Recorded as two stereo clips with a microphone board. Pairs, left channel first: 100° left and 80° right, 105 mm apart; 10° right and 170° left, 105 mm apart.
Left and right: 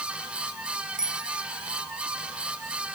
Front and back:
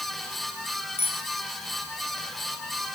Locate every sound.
1.0 s a bicycle bell: 5° left, 4 m